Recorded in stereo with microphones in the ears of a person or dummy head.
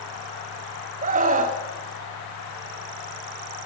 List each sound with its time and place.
1.0 s a scream: 40° right (ahead or behind), 1.6 m